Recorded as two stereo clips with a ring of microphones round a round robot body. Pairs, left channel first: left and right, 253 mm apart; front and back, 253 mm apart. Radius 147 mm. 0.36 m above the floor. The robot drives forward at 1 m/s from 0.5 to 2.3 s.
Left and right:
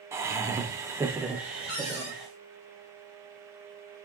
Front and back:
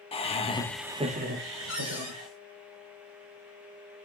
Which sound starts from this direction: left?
A cupboard door, at 1.7 s.